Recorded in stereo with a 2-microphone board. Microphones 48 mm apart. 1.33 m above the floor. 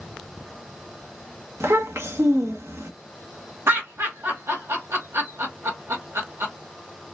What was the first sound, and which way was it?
A child speaking, 70° right (ahead or behind).